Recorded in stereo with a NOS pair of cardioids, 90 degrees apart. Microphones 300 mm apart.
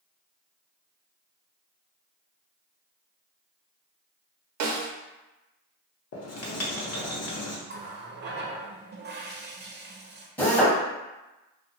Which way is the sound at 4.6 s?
70° right.